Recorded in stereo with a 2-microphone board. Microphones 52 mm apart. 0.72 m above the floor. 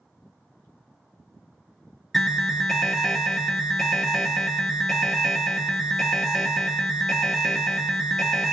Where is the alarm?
5° left (ahead or behind), 0.6 m.